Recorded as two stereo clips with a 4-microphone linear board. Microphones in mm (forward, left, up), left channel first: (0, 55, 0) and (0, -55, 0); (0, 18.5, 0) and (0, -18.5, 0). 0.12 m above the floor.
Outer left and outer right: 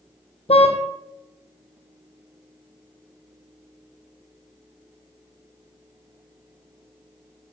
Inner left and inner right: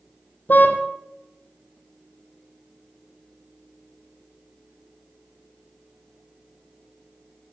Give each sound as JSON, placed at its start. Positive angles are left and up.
{"t": 0.5, "sound": "a car horn", "side_deg": 65, "distance_m": 2.5}